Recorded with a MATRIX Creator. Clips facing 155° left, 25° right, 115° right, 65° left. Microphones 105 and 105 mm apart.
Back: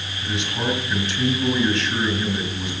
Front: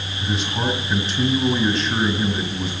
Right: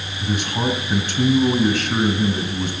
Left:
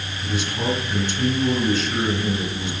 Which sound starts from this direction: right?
A man speaking, at 0.2 s.